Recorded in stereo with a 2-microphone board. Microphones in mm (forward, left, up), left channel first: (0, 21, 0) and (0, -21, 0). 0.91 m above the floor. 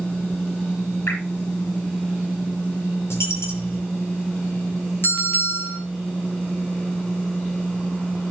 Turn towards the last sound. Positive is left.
turn(degrees=55)  # may be behind; listen again after turning